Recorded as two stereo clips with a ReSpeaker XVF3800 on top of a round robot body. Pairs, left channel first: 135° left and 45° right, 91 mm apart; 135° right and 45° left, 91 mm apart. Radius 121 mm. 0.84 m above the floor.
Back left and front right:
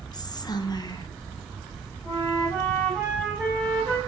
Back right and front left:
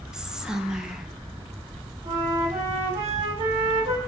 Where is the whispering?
125° left, 0.6 m.